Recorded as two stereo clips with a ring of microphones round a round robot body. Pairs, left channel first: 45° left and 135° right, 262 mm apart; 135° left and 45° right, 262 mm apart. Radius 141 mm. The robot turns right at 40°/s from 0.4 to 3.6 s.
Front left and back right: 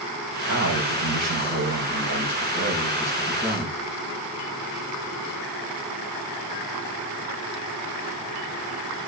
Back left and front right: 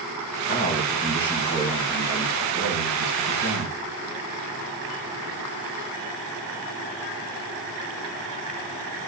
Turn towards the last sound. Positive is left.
turn(degrees=-50)